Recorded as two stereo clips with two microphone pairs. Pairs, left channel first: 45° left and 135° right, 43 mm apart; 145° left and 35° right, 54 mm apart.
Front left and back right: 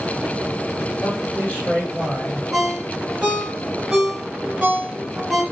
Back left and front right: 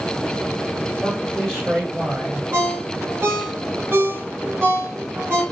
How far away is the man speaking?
About 1.8 m.